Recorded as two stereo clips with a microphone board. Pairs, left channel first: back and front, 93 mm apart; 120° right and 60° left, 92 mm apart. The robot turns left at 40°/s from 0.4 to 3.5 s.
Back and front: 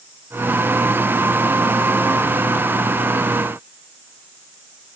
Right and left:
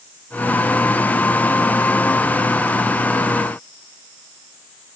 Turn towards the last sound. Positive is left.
No sound to turn to.